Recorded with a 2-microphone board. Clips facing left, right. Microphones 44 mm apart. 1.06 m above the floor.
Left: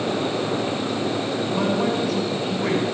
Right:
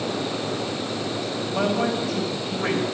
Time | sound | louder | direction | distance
1.5 | a man speaking | even | 85° right | 4.5 m